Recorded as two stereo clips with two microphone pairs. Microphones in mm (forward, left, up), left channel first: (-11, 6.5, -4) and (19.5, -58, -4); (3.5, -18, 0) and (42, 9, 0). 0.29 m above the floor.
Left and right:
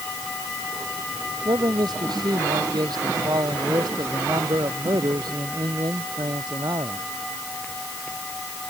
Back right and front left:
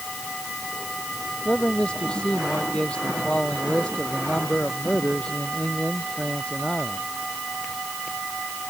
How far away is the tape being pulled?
I don't hear tape being pulled.